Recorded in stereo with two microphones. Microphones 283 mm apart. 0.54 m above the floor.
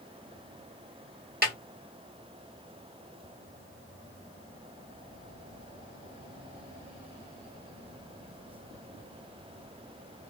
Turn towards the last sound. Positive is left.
turn(degrees=-35)  # may be behind; listen again after turning